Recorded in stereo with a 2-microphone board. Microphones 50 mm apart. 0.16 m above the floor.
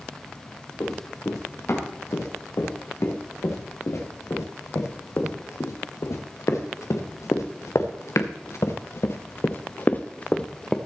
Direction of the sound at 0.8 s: 75° left (ahead or behind).